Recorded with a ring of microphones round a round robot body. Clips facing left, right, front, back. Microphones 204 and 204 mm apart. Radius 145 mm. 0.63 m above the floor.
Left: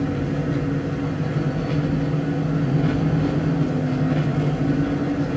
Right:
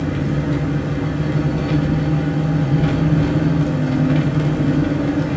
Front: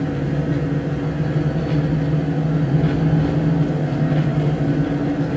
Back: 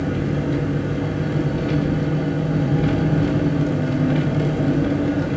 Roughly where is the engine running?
Behind right.